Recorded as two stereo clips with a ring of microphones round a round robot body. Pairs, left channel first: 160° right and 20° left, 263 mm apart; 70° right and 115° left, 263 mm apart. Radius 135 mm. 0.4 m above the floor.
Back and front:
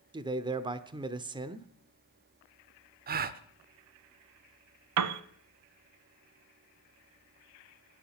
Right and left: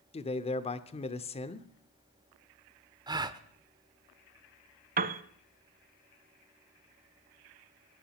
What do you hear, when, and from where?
0.1 s a man speaking: 30° right, 0.8 m
3.1 s a gasp: 45° left, 0.8 m
5.0 s a piano: 55° left, 0.8 m